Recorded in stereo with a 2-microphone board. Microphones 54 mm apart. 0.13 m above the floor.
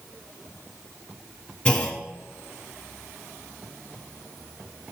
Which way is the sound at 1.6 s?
15° left (ahead or behind).